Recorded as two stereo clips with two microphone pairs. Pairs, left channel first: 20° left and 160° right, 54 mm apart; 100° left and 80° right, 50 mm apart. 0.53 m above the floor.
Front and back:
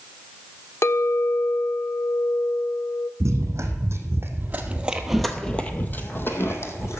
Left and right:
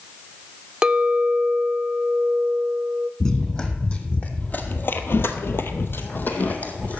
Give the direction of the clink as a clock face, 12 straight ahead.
12 o'clock.